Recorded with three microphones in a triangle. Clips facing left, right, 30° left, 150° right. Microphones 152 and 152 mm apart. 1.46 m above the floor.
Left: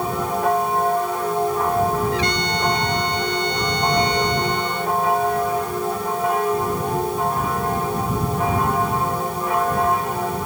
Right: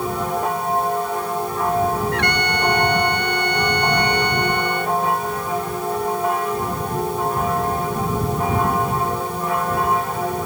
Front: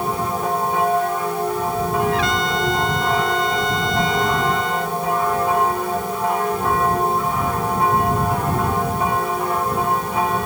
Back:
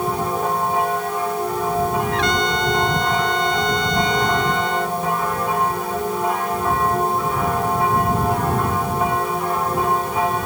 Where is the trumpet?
60° right.